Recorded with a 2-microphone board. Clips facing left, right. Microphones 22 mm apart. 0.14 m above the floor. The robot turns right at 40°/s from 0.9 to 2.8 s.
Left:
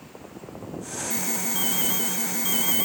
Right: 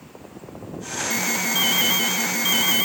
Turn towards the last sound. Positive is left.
turn(degrees=-50)